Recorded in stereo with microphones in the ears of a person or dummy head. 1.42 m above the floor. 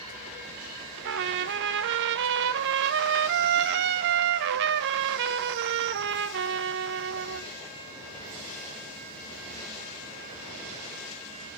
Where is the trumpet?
70° right (ahead or behind), 1.1 m.